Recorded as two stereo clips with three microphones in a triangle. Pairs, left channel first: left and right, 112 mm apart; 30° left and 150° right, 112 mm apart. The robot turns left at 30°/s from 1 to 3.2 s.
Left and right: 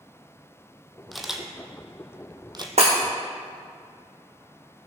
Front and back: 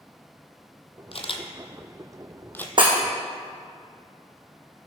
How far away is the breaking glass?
About 2.5 m.